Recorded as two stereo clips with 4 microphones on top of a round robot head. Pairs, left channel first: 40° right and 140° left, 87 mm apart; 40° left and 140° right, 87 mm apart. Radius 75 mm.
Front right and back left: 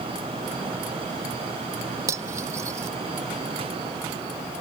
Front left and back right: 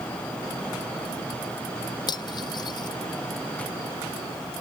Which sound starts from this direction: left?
Cutlery clinking, at 2.1 s.